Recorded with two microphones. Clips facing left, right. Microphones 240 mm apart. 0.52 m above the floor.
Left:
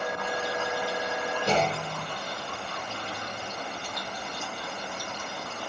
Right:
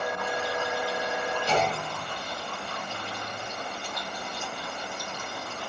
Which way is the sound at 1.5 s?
60° left (ahead or behind).